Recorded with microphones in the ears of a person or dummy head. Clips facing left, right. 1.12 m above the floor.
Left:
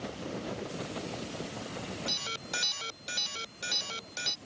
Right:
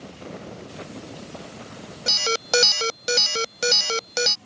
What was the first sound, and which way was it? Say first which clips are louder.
An alarm: right 15 dB; 85° right.